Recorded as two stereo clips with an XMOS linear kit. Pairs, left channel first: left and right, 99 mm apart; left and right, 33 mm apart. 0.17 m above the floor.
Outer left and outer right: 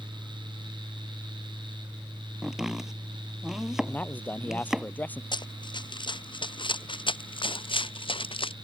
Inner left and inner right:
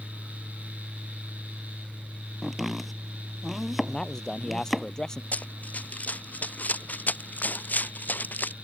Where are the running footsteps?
55° left (ahead or behind); by 8.5 s 70° left (ahead or behind).